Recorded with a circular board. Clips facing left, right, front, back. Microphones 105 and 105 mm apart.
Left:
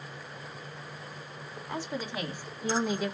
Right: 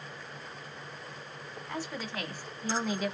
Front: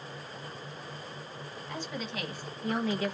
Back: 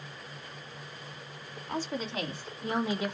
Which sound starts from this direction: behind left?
A woman speaking, at 1.7 s.